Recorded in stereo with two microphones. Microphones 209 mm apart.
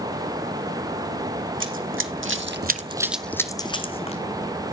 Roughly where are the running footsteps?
Right.